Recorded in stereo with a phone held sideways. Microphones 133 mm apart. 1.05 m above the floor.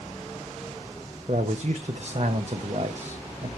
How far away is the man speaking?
About 0.6 m.